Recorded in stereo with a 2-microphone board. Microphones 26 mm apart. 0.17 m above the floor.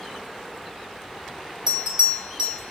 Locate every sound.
1.7 s a bell: 25° right (ahead or behind), 1.3 m